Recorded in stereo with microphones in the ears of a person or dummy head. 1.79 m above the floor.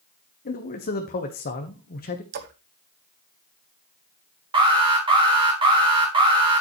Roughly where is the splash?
Right.